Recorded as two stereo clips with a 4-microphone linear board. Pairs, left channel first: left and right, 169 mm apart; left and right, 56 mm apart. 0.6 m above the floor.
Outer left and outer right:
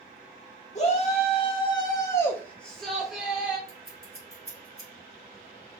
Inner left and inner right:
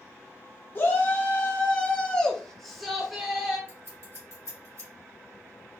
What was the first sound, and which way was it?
A shout, 40° left (ahead or behind).